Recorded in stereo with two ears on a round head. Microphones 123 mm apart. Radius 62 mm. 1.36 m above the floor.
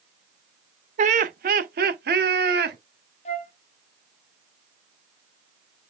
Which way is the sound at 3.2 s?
45° left (ahead or behind).